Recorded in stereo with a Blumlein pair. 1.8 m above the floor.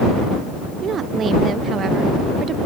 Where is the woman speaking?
25° right.